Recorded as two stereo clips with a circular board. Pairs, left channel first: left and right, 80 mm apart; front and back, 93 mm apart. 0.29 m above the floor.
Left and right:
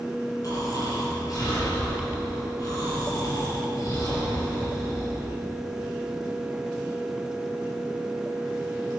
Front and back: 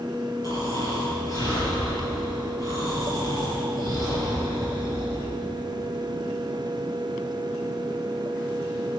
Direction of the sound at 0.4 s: 45° left.